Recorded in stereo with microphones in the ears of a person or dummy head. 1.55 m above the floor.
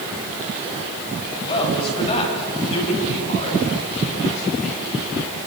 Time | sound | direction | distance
1.4 | a man speaking | 25° left (ahead or behind) | 8.5 m